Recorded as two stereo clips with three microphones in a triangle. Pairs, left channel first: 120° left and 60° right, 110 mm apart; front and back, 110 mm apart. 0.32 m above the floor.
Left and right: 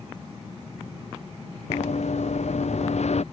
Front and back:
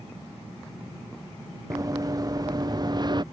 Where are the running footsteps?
120° left; by 3.2 s 130° left.